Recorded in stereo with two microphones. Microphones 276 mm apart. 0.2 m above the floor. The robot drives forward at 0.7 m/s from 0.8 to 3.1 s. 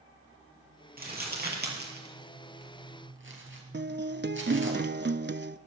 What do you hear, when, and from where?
1.0 s crumpling: 35° right (ahead or behind), 5 m; by 4.7 s 45° right (ahead or behind), 3.5 m
3.7 s a guitar: 40° right (ahead or behind), 0.6 m